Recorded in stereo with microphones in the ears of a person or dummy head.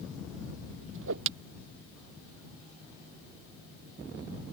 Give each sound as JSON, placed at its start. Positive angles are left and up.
{"t": 0.9, "sound": "a whoosh", "side_deg": -70}